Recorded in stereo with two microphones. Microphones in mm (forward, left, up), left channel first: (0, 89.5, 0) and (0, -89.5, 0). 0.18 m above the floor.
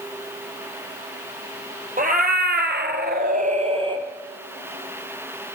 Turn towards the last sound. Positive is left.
turn(degrees=-25)  # may be behind; listen again after turning